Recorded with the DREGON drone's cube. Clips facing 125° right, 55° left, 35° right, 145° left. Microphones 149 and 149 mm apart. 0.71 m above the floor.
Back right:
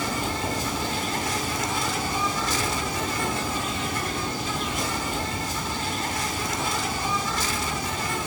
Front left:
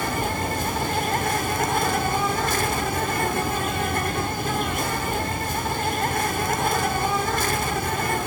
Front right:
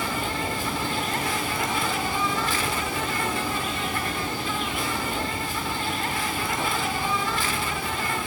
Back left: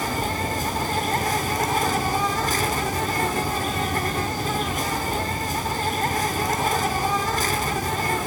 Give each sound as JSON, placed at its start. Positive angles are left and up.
{"t": 0.0, "sound": "an insect", "azimuth_deg": 95, "distance_m": 0.8}